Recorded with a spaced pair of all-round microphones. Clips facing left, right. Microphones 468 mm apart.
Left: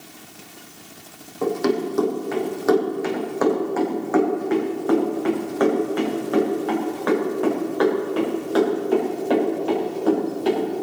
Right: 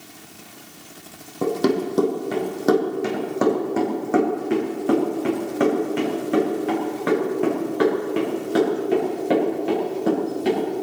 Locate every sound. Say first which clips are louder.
1.4 s running footsteps: right 1 dB; 55° right (ahead or behind), 3 m; by 10.8 s 40° right (ahead or behind), 9.5 m